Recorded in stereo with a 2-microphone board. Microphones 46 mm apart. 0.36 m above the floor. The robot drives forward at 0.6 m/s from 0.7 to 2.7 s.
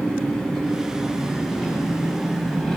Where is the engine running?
5° left (ahead or behind), 3.5 m.